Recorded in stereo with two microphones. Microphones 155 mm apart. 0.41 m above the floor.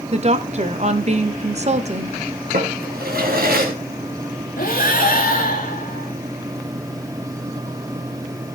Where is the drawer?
70° right (ahead or behind), 2.5 m.